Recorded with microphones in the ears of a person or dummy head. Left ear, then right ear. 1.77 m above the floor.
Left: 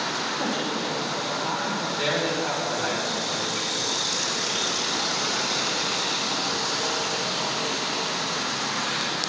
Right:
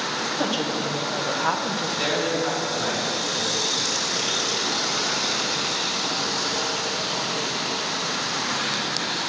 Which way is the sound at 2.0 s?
Centre (ahead or behind).